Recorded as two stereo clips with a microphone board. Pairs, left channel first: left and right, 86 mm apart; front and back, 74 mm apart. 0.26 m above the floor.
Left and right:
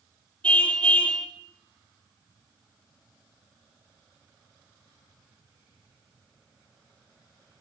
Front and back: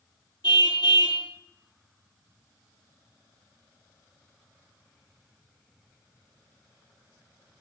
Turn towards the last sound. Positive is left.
turn(degrees=15)